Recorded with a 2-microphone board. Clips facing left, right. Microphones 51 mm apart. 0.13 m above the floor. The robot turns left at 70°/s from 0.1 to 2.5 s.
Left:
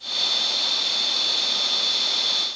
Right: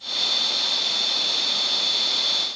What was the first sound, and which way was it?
Only background noise.